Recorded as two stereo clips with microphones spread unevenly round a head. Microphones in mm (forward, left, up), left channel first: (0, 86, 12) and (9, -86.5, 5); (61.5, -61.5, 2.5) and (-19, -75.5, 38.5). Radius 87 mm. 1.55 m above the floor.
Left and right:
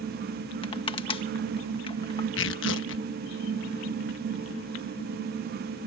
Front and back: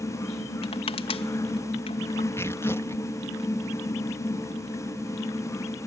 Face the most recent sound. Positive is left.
turn(degrees=95)